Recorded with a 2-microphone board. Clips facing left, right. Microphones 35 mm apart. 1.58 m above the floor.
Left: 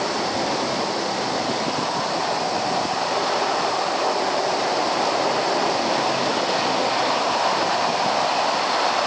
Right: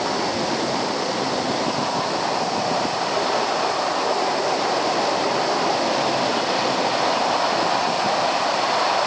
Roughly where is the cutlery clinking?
I don't hear cutlery clinking.